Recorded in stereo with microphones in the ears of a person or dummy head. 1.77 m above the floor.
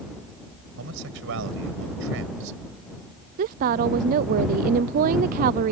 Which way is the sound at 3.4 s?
50° right (ahead or behind).